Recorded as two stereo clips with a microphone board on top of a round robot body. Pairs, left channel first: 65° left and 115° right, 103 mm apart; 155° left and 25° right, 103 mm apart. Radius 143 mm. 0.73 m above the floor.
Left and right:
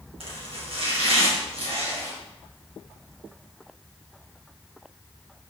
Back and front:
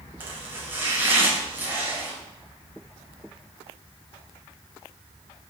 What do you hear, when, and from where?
0.2 s chopping: 95° right, 3 m